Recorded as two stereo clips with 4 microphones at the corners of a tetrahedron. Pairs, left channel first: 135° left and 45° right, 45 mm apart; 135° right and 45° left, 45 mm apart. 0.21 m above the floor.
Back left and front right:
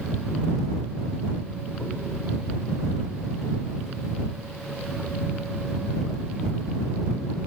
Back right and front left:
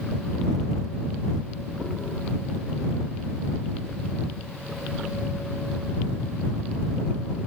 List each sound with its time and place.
Only background noise.